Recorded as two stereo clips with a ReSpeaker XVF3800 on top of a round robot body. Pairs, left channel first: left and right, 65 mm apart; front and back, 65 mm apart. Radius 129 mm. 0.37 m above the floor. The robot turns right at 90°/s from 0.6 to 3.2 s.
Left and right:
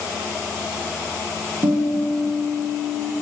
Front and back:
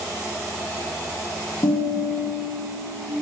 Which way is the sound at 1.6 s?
55° right.